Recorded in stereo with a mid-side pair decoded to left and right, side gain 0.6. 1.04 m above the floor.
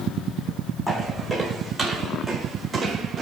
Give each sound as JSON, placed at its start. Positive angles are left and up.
{"t": 0.9, "sound": "footsteps", "azimuth_deg": 0, "distance_m": 5.5}